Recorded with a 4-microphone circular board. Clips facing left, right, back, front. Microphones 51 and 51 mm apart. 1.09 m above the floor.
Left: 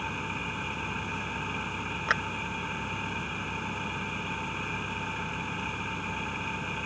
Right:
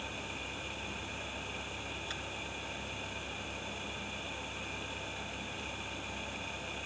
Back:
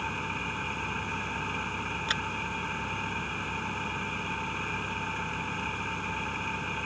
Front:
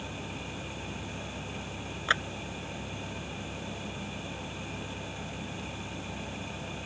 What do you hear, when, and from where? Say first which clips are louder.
0.0 s an engine running: left 8 dB, back 7 dB; 140° left
2.1 s a clap: left 20 dB, front 6 dB; 65° left